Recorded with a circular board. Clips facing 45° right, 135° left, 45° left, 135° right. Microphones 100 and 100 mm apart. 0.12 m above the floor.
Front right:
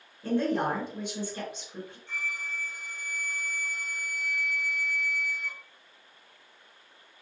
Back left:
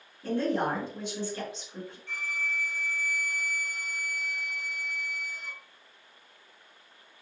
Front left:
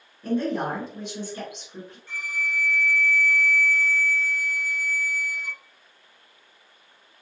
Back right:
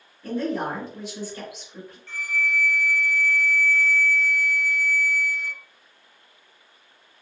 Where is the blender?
No blender in this recording.